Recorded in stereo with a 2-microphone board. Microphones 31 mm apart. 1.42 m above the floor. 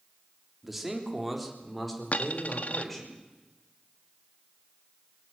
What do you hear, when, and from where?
0.6 s a man speaking: 5° right (ahead or behind), 3.5 m; by 3.1 s 10° left (ahead or behind), 6 m
2.1 s a dropped coin: 55° left (ahead or behind), 1.2 m